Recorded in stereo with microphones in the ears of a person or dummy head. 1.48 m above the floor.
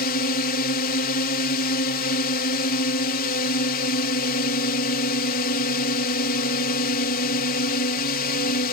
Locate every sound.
0.0 s a drone: 50° left (ahead or behind)